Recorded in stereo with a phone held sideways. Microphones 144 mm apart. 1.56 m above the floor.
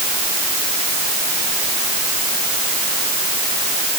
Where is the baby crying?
I don't hear a baby crying.